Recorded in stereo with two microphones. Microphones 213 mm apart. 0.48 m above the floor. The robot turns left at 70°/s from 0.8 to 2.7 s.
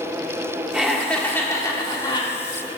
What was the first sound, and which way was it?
Laughter, 5° right (ahead or behind).